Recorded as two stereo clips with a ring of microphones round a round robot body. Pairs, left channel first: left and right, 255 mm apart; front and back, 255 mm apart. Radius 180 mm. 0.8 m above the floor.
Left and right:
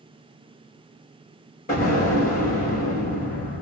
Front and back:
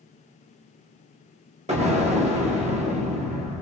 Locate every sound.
1.7 s an explosion: 130° left, 1.0 m